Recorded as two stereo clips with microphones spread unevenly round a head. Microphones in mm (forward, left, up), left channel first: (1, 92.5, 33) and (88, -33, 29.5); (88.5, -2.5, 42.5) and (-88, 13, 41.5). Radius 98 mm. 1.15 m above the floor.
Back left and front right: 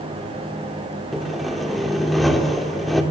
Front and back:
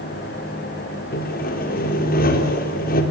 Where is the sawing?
35° left, 3.5 m.